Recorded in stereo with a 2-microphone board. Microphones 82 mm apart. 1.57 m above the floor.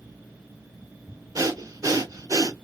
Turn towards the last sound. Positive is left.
turn(degrees=-40)  # may be behind; listen again after turning